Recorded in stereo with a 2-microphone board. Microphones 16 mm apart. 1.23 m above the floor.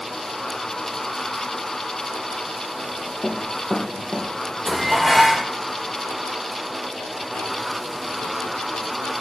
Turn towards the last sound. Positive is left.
turn(degrees=-5)  # may be behind; listen again after turning